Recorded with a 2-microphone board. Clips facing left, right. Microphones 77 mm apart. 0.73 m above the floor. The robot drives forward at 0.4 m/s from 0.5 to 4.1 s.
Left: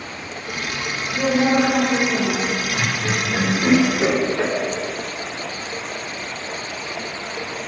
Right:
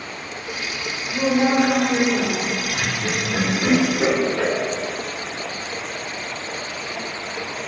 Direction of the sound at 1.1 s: 45° right (ahead or behind).